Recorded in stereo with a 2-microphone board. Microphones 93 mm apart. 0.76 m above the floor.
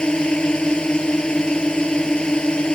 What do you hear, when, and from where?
0.0 s a drone: 10° left (ahead or behind)